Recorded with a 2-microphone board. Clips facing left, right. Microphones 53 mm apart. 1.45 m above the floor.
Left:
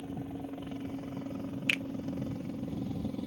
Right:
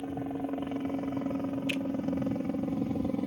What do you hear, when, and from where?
0.0 s a helicopter: 45° right (ahead or behind)
1.7 s a finger snap: 75° left (ahead or behind)